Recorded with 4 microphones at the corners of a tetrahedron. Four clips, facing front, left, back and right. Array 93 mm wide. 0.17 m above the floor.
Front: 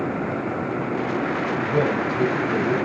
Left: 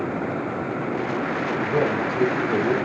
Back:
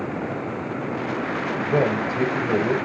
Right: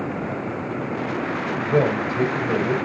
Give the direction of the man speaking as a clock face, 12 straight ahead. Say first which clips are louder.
Right 4 dB, back 2 dB; 5 o'clock.